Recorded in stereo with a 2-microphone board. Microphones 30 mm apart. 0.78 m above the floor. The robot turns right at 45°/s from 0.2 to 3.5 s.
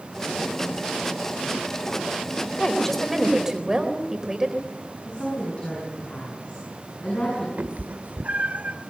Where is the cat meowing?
60° right (ahead or behind), 1.5 m.